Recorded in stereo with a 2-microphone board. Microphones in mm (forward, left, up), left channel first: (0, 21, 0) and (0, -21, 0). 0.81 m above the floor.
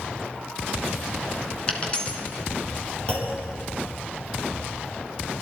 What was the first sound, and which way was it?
A dropped coin, 25° left (ahead or behind).